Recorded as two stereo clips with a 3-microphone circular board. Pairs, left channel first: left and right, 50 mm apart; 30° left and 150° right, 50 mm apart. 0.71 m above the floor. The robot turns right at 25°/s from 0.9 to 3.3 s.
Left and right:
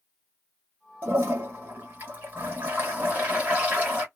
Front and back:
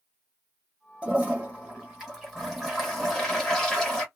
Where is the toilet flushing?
100° right, 1.5 m; by 4.0 s 45° right, 1.5 m.